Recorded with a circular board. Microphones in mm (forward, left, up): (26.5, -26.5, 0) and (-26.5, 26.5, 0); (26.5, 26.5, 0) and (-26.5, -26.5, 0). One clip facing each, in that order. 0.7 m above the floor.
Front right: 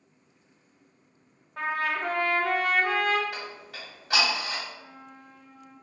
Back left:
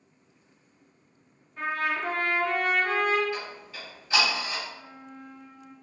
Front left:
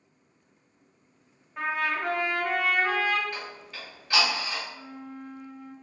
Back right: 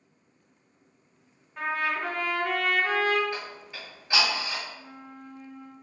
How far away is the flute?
About 1.2 m.